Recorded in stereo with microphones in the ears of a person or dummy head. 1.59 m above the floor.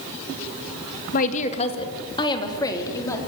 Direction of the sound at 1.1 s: 45° left (ahead or behind).